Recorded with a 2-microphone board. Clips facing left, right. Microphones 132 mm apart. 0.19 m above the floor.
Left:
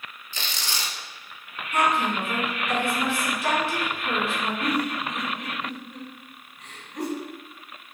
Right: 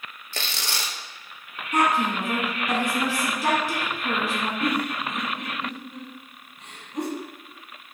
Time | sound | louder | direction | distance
0.3 | tearing paper | right 1 dB | 65° right (ahead or behind) | 0.7 m
1.7 | a woman speaking | right 1 dB | 40° right (ahead or behind) | 1.6 m
4.6 | a giggle | even | 25° right (ahead or behind) | 1.1 m